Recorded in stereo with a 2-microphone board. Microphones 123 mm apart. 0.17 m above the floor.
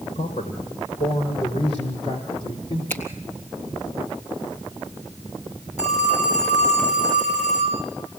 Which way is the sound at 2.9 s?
20° left (ahead or behind).